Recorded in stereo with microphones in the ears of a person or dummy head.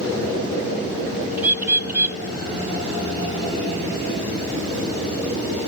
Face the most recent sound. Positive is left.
turn(degrees=-10)  # may be behind; listen again after turning